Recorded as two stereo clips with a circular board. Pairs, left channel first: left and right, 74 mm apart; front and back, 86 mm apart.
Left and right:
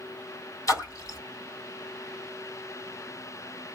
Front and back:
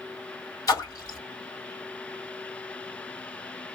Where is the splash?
45° left, 2 m.